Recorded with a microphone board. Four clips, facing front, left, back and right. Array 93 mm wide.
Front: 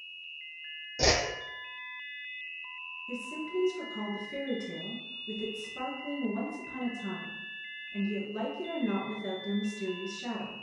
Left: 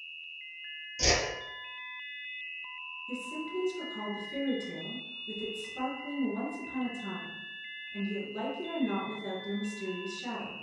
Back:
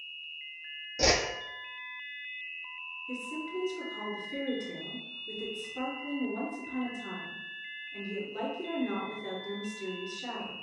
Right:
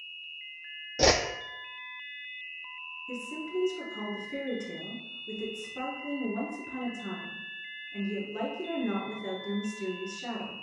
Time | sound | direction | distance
1.0 | a whoosh | 85° right | 0.5 m
3.1 | a woman speaking | 65° right | 1.5 m